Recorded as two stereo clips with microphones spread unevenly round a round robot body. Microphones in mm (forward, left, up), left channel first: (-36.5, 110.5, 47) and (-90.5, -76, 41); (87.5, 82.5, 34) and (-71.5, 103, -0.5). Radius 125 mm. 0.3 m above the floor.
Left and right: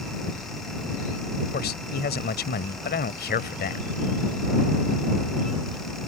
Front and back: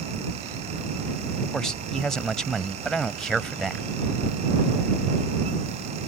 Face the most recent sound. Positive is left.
turn(degrees=90)